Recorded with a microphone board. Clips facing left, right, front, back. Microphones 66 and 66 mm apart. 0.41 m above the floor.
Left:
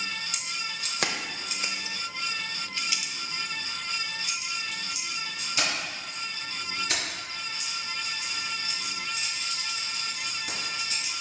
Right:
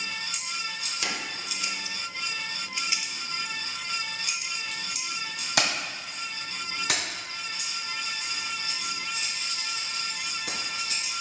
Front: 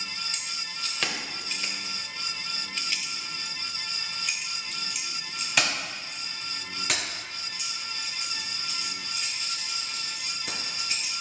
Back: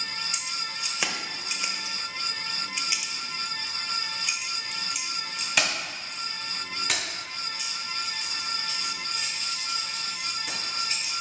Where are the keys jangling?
100° left, 1.4 m; by 11.1 s 90° right, 5 m.